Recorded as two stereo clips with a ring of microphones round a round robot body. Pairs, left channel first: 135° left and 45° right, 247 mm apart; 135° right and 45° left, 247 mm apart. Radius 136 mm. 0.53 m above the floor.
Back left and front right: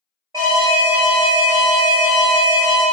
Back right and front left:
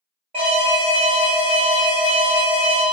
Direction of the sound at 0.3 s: 15° left.